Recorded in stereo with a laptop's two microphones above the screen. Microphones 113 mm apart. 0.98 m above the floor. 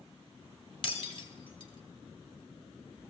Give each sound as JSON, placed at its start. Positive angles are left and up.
{"t": 0.8, "sound": "breaking glass", "side_deg": 45, "distance_m": 1.3}